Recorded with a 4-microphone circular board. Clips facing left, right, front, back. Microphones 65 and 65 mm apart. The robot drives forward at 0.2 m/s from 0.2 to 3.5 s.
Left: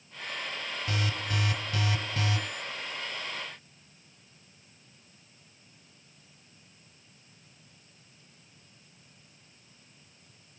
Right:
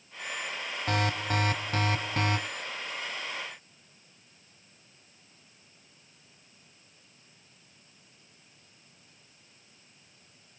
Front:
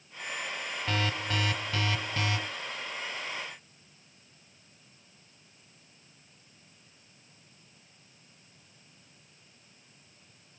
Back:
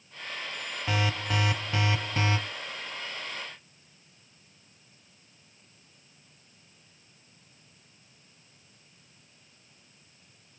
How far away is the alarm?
About 1.0 m.